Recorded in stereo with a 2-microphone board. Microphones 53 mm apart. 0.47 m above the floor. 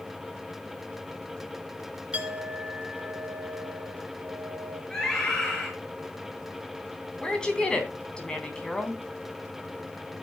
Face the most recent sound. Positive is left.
turn(degrees=15)  # may be behind; listen again after turning